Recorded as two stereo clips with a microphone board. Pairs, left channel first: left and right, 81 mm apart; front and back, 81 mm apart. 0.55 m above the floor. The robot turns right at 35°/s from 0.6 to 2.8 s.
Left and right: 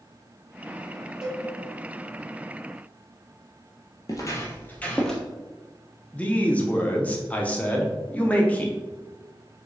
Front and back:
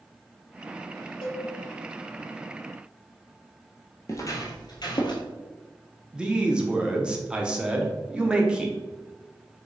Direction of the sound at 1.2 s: 5° right.